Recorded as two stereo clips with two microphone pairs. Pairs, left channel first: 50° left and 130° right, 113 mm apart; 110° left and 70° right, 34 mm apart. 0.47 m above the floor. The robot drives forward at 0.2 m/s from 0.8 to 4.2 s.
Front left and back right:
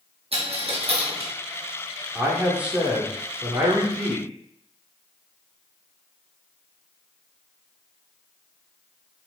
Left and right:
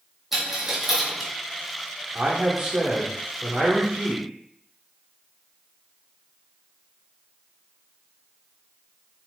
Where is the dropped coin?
150° right, 1.1 m.